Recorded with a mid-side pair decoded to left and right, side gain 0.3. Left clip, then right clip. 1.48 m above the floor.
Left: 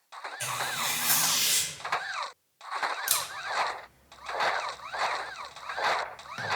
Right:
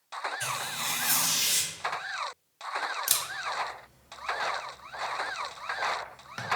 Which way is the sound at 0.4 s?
65° left.